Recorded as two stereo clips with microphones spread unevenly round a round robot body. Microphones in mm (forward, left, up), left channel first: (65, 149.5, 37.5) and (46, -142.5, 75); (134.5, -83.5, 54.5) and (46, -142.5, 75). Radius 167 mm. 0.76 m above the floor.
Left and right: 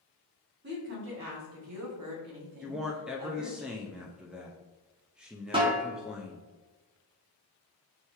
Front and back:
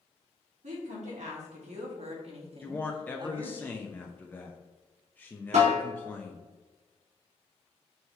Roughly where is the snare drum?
Behind.